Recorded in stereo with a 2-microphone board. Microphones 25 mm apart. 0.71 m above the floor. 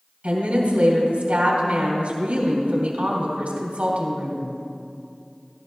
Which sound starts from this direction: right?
A woman speaking, at 0.2 s.